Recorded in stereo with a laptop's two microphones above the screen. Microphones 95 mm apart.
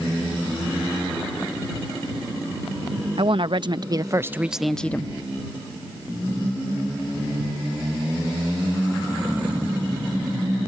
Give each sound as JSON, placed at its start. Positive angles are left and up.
{"t": 3.2, "sound": "a woman speaking", "side_deg": -65}